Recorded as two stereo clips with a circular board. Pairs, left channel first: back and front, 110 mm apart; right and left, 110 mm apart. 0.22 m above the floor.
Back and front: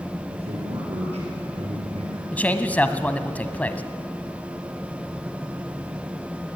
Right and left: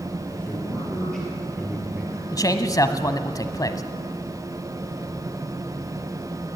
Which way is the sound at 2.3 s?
115° right.